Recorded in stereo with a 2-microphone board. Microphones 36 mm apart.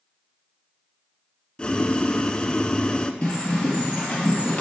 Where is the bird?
30° left (ahead or behind), 3 m.